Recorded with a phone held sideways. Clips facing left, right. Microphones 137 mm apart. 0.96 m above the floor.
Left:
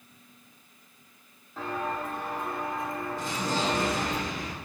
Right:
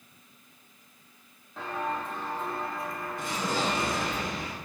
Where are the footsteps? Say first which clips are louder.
Left 1 dB; centre (ahead or behind), 2 m; by 4.2 s 40° left (ahead or behind), 1.3 m.